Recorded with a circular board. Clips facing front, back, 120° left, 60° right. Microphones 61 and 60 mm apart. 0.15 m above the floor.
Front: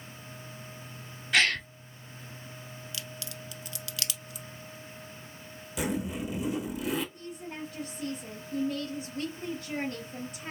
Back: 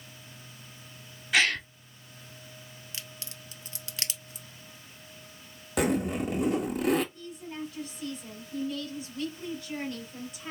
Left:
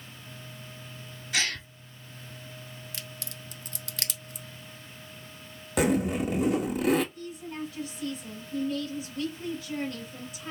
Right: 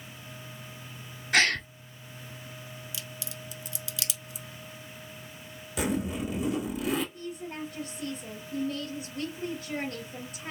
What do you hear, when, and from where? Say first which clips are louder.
1.3 s a gasp: even, right 7 dB; 95° right, 0.5 m
2.9 s a crack: front 3 dB, right 2 dB; 130° left, 0.7 m
5.8 s a zipper: back 5 dB, left 5 dB; 150° left, 1.1 m
7.1 s a woman speaking: back 1 dB, even; 30° right, 2.5 m